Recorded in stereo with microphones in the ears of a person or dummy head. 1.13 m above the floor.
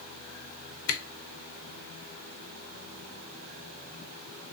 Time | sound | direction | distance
0.9 | a camera shutter | 80° left | 0.9 m